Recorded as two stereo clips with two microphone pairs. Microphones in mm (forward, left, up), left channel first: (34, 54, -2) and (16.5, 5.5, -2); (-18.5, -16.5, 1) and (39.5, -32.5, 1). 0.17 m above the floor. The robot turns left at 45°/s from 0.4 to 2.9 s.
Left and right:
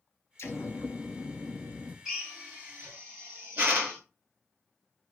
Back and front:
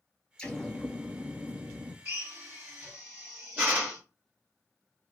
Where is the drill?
30° right, 2.5 m; by 4.0 s 70° right, 2.5 m.